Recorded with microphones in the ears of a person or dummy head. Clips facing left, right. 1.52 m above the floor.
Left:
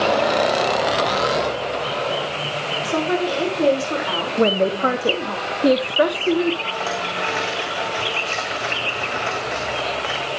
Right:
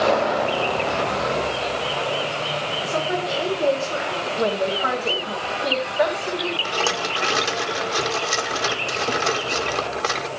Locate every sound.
2.9 s a woman speaking: 60° left (ahead or behind), 5 m
4.4 s a woman speaking: 50° left (ahead or behind), 1.3 m
6.7 s a rattle: 55° right (ahead or behind), 1.5 m